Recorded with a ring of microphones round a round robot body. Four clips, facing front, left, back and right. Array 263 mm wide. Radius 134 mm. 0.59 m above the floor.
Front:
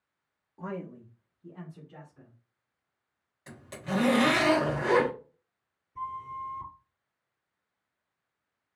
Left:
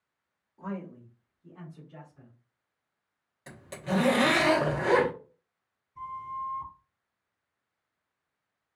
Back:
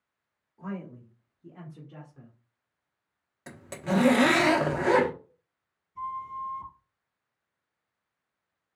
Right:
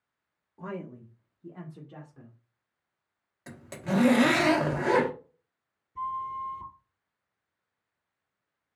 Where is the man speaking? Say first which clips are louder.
Even, even; 40° right, 0.8 m; by 2.4 s 120° right, 1.7 m.